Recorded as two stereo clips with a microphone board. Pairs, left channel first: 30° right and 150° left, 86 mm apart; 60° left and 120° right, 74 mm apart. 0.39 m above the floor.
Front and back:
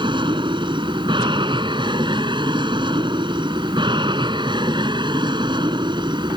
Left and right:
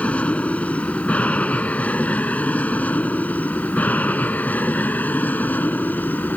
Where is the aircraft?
130° left; by 6.4 s 125° left.